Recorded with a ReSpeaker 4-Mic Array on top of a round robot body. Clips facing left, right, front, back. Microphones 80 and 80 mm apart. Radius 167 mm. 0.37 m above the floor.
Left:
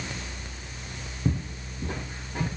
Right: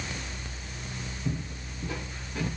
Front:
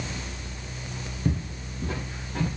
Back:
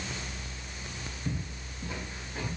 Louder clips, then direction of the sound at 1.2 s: Left 6 dB, front 9 dB; 45° left.